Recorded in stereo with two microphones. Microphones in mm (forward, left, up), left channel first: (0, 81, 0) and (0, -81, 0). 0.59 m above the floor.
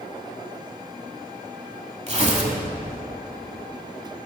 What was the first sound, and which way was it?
Tearing paper, 40° right (ahead or behind).